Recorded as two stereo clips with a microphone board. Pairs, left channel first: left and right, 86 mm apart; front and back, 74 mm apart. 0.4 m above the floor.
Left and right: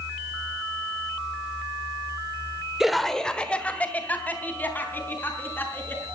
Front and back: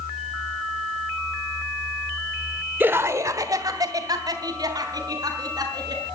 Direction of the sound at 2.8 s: 170° right.